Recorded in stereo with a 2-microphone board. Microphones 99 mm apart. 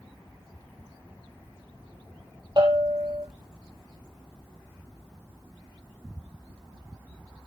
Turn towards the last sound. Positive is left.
turn(degrees=-50)  # may be behind; listen again after turning